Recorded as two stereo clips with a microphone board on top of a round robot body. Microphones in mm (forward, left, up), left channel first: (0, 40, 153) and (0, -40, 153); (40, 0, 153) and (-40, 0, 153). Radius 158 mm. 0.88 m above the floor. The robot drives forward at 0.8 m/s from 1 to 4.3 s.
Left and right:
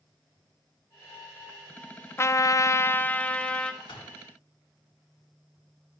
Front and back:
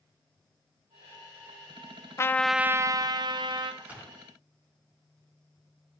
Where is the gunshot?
110° left, 2.5 m; by 4.1 s 115° left, 2.5 m.